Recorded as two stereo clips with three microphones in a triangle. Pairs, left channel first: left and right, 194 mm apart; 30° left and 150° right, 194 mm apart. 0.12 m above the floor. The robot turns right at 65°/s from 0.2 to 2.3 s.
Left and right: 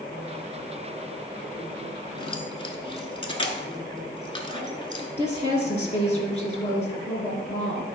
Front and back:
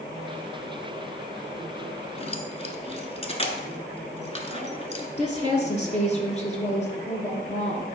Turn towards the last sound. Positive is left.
turn(degrees=60)